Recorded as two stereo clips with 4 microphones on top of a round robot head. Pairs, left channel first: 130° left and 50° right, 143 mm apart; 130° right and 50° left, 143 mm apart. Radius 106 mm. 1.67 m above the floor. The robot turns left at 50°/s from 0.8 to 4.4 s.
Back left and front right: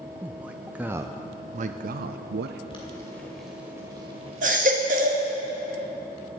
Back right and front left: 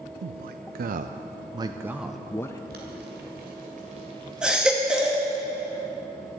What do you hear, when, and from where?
0.2 s a man speaking: 30° left, 0.5 m; by 2.6 s 60° right, 0.5 m
2.7 s boiling: 75° left, 2 m; by 5.3 s 10° right, 2 m
4.4 s a baby crying: 30° right, 1.2 m